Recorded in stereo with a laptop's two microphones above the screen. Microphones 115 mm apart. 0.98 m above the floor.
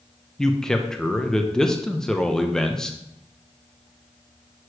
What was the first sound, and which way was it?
A man speaking, 5° left (ahead or behind).